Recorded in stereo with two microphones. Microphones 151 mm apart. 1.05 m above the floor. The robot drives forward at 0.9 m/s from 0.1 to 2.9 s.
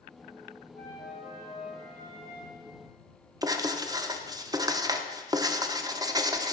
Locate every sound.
0.8 s a flute: 80° left, 1.5 m; by 2.6 s 40° left (ahead or behind), 2.5 m
3.4 s writing: 25° right (ahead or behind), 0.5 m